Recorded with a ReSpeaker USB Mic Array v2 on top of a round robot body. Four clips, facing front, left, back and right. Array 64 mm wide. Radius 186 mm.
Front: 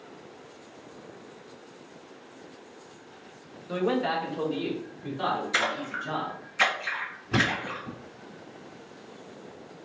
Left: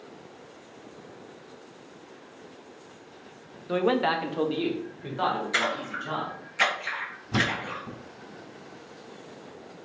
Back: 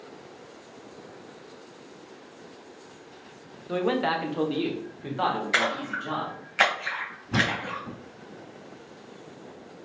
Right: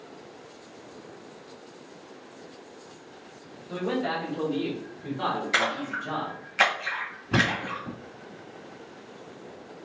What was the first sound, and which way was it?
A man speaking, 95° left.